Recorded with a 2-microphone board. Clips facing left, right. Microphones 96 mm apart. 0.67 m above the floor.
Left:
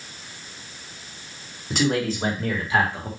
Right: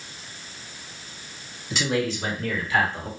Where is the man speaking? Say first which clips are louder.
Left 2 dB; 50° left (ahead or behind), 2 m; by 3.1 s 5° left (ahead or behind), 1.2 m.